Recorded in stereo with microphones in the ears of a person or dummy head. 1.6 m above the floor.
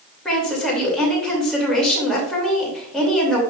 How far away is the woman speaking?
About 2.5 m.